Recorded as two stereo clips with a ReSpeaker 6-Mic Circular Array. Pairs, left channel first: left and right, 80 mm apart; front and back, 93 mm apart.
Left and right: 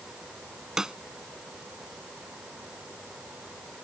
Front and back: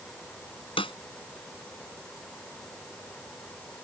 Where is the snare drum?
10° right.